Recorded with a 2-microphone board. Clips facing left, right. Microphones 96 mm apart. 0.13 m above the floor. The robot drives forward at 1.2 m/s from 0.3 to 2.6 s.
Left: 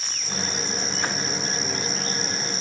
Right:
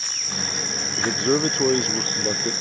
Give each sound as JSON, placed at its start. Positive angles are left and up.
{"t": 1.0, "sound": "a man speaking", "side_deg": -70}